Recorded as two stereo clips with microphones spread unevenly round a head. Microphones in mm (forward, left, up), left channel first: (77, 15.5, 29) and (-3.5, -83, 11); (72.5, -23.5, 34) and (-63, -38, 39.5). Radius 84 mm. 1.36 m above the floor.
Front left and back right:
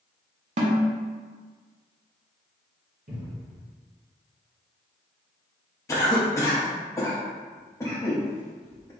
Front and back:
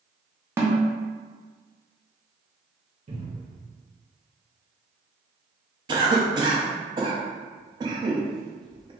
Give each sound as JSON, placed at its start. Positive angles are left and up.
{"t": 0.6, "sound": "a snare drum", "azimuth_deg": -100, "distance_m": 1.0}
{"t": 3.1, "sound": "a cupboard door", "azimuth_deg": -135, "distance_m": 1.6}
{"t": 5.9, "sound": "a cough", "azimuth_deg": 125, "distance_m": 0.8}